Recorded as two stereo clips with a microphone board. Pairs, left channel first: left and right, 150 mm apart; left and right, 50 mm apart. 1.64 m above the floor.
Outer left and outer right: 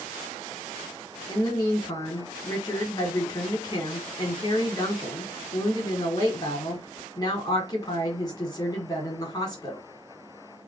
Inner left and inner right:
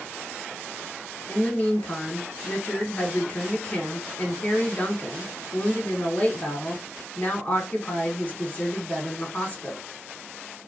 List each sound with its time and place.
1.3 s a woman speaking: 25° left (ahead or behind), 1.6 m